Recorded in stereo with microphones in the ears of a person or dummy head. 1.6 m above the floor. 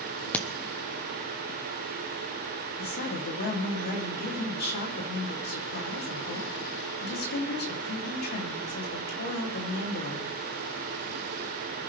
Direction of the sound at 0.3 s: 5° left (ahead or behind).